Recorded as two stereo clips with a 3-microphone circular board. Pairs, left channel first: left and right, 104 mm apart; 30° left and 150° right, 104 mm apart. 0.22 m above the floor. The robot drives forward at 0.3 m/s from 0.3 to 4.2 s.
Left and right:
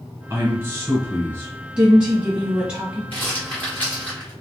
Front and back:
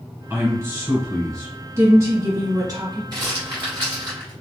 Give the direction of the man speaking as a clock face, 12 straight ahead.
4 o'clock.